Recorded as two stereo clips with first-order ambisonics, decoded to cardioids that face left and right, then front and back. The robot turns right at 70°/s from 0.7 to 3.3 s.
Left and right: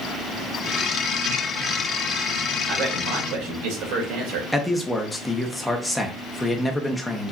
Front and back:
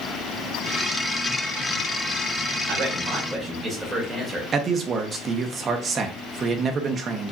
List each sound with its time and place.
2.7 s a man speaking: 145° right, 2.5 m; by 4.4 s 100° right, 2.5 m
4.5 s a man speaking: 175° left, 0.7 m